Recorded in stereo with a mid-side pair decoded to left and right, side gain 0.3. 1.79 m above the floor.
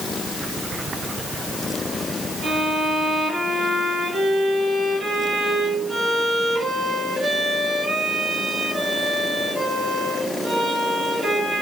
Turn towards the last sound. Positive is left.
turn(degrees=-60)